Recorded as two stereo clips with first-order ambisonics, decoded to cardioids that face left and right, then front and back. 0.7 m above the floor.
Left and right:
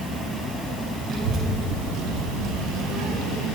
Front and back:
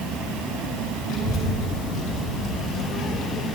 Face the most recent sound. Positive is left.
turn(degrees=-50)